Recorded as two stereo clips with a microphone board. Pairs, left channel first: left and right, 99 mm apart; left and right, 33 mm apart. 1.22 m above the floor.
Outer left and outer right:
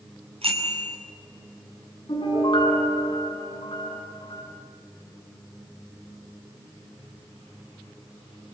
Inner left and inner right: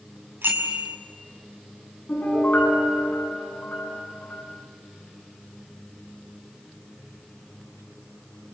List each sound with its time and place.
0.4 s a bicycle bell: 85° right, 6 m
2.1 s a piano: 60° left (ahead or behind), 7.5 m